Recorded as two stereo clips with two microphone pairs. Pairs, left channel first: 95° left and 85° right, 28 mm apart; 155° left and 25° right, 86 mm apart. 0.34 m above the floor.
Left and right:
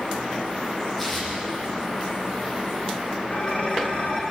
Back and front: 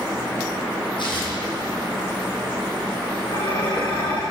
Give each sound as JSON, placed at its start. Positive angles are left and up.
{"t": 1.0, "sound": "tearing paper", "azimuth_deg": 180, "distance_m": 9.0}
{"t": 3.3, "sound": "dishes clattering", "azimuth_deg": 135, "distance_m": 9.5}